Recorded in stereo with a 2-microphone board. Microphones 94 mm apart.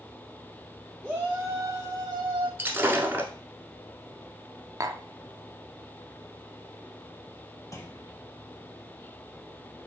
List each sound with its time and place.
1.0 s a shout: 10° right (ahead or behind), 0.9 m; by 2.5 s 60° right (ahead or behind), 1.1 m
2.6 s breaking glass: 20° right (ahead or behind), 1.2 m
4.8 s tapping: 35° right (ahead or behind), 0.7 m
7.7 s a clunk: 35° left (ahead or behind), 1.0 m